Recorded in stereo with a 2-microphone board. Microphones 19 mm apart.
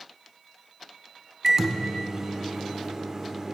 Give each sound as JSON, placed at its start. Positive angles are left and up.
{"t": 1.4, "sound": "a microwave", "side_deg": -30, "distance_m": 0.7}